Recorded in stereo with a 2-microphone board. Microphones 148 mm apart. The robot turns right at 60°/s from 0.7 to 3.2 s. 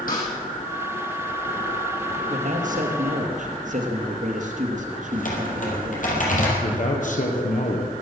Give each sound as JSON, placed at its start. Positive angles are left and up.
{"t": 0.1, "sound": "a snare drum", "side_deg": 70, "distance_m": 4.5}
{"t": 2.3, "sound": "a man speaking", "azimuth_deg": -125, "distance_m": 3.0}
{"t": 5.1, "sound": "typing on a keyboard", "side_deg": 60, "distance_m": 4.5}
{"t": 6.6, "sound": "a man speaking", "side_deg": 60, "distance_m": 3.5}